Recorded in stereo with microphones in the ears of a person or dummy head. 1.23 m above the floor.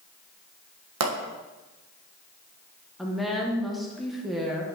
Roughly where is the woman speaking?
Centre.